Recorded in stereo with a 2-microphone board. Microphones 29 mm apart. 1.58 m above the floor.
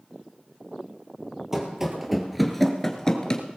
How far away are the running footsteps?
About 2.5 m.